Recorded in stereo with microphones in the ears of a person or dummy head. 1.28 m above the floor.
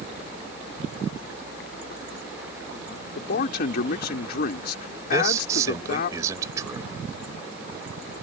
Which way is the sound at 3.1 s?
50° left (ahead or behind).